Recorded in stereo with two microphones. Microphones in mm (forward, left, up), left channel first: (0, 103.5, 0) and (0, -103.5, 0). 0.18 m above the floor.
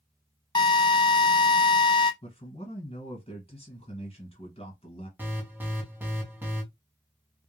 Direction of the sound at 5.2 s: 10° right (ahead or behind).